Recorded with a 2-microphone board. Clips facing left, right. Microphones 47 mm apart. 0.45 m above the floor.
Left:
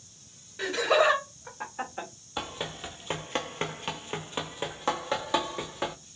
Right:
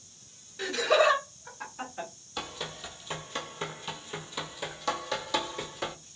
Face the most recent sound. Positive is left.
turn(degrees=25)  # may be behind; listen again after turning